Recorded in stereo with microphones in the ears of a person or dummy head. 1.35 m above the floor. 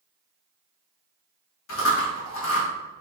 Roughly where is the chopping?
No chopping in this recording.